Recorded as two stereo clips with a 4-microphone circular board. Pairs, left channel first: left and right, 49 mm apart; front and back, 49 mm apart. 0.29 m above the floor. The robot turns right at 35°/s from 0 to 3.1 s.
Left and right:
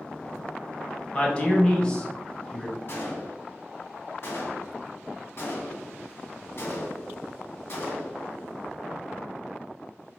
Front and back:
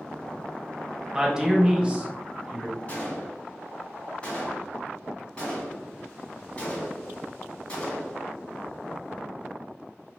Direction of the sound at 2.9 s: 60° left.